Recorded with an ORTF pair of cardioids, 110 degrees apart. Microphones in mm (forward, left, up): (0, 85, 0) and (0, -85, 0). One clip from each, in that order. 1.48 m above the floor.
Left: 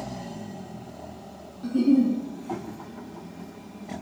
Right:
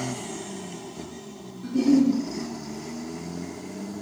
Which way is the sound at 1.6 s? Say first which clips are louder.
Right 1 dB; 15° left.